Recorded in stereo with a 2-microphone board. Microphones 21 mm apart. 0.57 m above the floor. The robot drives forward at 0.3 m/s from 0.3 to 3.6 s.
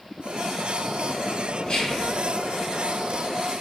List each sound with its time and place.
1.7 s whispering: 50° left (ahead or behind), 1.2 m; by 2.1 s 45° left (ahead or behind), 1.2 m